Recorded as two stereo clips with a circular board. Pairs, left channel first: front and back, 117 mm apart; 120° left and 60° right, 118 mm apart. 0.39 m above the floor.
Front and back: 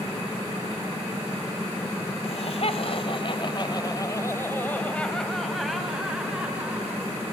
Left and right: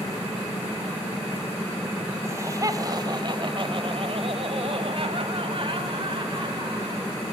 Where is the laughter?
5° left, 2.5 m; by 7.1 s 105° right, 4 m.